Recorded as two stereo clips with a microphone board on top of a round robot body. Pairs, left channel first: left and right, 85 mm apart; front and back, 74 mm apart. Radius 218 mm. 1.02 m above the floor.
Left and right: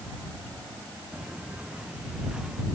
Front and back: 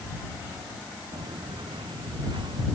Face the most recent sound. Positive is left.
turn(degrees=-175)